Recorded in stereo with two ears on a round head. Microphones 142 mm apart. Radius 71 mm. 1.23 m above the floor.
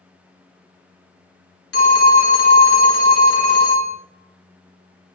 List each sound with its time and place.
1.7 s a phone ringing: 75° left (ahead or behind), 0.8 m